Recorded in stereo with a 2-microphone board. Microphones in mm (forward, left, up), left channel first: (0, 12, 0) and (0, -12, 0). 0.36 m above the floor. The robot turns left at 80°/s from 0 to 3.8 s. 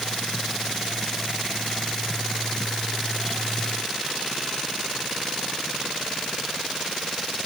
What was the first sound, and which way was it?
Only background noise.